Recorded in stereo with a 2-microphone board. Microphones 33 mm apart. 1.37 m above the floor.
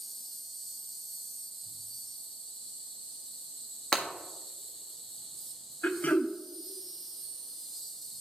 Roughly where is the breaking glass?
Left.